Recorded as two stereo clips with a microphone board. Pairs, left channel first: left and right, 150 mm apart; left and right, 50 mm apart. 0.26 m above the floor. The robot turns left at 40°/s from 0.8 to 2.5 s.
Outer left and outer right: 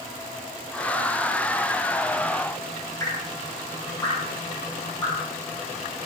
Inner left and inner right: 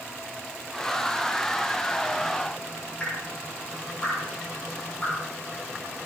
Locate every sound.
3.0 s dripping: 20° left (ahead or behind), 7 m